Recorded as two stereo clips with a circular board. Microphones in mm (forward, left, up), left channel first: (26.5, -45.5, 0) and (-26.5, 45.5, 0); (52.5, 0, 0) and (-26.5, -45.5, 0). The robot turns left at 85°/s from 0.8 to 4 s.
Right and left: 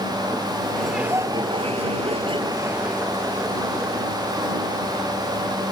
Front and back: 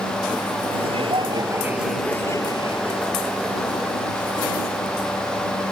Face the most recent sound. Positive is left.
turn(degrees=-55)